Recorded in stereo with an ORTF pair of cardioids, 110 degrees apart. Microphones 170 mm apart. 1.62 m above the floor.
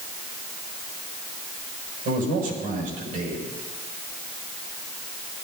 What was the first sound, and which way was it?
A man speaking, 65° right.